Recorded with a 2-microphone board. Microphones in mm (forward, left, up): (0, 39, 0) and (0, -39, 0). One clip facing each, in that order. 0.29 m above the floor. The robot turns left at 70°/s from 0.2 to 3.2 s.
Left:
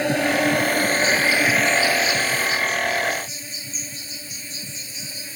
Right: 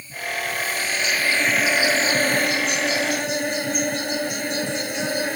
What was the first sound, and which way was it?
An insect, 95° left.